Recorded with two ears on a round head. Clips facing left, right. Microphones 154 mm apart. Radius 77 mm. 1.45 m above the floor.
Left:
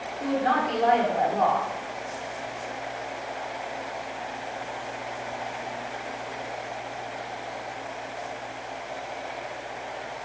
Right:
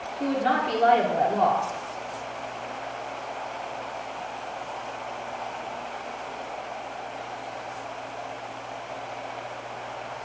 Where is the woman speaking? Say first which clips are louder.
Even; 45° right (ahead or behind), 1.3 m.